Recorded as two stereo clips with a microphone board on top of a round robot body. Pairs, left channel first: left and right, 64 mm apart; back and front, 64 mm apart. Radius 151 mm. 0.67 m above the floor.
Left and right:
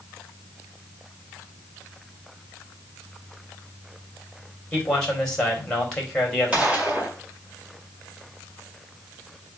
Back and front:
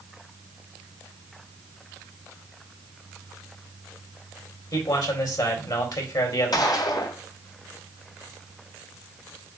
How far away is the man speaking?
About 3 m.